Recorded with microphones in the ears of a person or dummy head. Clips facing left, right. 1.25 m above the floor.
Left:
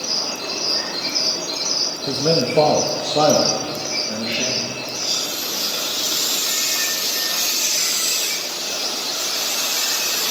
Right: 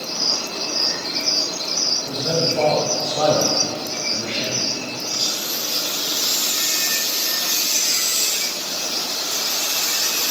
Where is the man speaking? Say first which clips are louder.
Left 4 dB; 65° left (ahead or behind), 1.1 m; by 4.8 s 55° left (ahead or behind), 2 m.